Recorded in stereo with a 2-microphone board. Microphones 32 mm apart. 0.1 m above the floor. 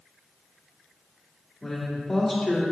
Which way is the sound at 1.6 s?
5° left (ahead or behind).